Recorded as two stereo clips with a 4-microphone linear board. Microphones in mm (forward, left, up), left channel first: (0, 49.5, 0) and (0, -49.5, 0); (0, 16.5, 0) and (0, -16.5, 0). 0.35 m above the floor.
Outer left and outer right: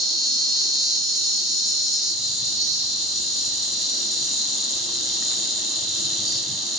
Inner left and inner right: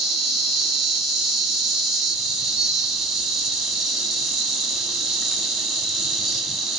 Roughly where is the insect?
Centre.